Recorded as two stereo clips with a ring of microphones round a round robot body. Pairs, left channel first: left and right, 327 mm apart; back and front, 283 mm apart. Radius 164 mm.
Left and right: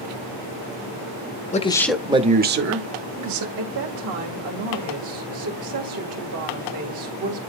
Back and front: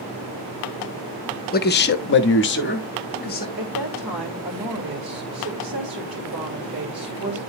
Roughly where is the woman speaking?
Ahead right.